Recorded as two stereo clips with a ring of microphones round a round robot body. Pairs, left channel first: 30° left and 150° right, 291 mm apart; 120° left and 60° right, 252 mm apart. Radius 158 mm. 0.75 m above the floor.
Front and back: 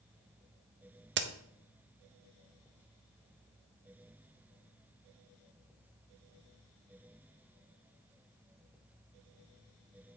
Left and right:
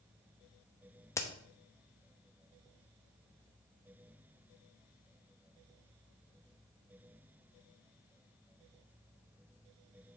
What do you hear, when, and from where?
1.2 s a crack: 165° right, 0.7 m